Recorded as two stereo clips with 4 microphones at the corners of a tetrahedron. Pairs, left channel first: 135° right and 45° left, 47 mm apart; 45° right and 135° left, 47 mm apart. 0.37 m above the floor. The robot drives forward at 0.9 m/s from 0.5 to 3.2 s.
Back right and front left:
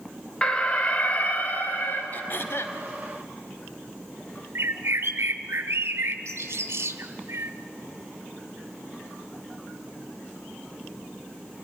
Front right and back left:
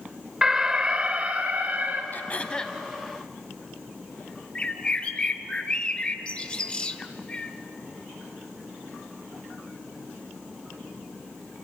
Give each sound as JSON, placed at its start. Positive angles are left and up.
{"t": 0.4, "sound": "an alarm", "azimuth_deg": -165, "distance_m": 1.1}
{"t": 2.1, "sound": "throat clearing", "azimuth_deg": -90, "distance_m": 0.9}
{"t": 4.5, "sound": "a bird", "azimuth_deg": 20, "distance_m": 1.2}